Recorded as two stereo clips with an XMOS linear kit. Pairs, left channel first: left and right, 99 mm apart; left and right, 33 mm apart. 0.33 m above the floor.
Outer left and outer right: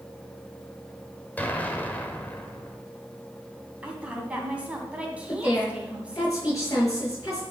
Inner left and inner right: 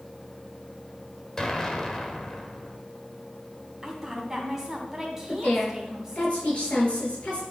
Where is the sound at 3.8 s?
15° right (ahead or behind), 2.5 m.